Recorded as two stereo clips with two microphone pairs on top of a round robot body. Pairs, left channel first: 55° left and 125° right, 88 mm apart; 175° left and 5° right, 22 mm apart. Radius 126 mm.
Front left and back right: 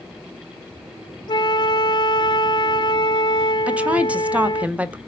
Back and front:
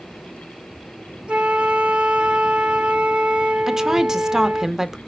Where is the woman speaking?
75° right, 1.1 m.